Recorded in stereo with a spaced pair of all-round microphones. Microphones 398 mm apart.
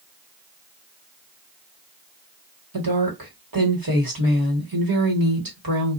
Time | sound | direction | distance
2.7 | a woman speaking | 60° right (ahead or behind) | 1.6 m